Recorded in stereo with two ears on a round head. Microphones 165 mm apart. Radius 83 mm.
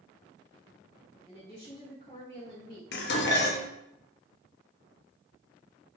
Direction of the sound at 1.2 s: 25° left (ahead or behind).